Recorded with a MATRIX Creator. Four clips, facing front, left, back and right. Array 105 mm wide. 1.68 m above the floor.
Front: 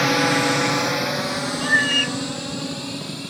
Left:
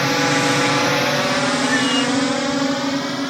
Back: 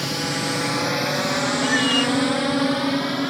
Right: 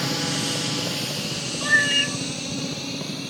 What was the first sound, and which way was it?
A drone, 45° left.